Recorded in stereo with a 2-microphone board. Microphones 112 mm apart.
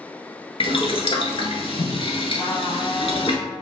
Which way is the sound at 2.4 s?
40° left (ahead or behind).